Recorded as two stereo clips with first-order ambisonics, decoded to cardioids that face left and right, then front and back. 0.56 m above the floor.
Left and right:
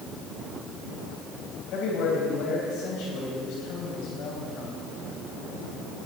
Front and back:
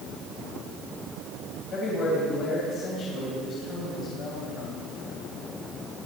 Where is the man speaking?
55° left, 3.5 m.